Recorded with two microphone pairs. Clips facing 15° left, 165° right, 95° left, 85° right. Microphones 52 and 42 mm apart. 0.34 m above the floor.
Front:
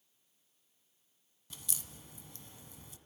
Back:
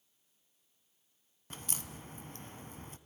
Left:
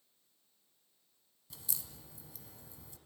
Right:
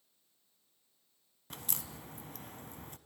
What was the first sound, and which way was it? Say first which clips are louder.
A crack: back 5 dB, right 6 dB; 120° right.